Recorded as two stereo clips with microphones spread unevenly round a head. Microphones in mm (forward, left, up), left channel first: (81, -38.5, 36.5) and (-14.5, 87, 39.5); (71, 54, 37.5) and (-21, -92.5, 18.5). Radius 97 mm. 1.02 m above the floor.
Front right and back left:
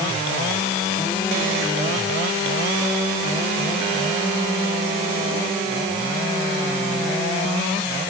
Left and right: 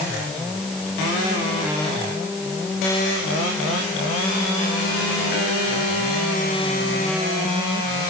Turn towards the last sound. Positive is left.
No sound to turn to.